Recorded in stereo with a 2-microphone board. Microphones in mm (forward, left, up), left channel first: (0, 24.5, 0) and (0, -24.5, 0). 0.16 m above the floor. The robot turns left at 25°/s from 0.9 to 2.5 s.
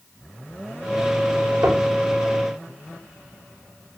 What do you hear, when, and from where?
1.6 s knocking: 65° right (ahead or behind), 3.5 m; by 1.9 s 70° right (ahead or behind), 3.5 m